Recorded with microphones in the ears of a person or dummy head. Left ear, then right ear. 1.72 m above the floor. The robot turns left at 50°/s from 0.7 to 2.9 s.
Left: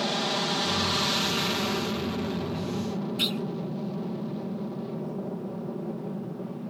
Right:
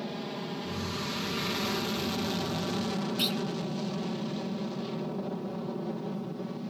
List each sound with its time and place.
0.0 s an aircraft: 55° left (ahead or behind); by 6.7 s 60° right (ahead or behind)
3.2 s a clunk: 10° right (ahead or behind)